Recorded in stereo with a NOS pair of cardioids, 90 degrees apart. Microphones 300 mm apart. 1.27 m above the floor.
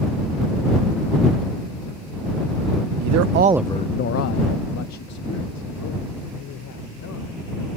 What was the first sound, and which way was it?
A man speaking, 70° right.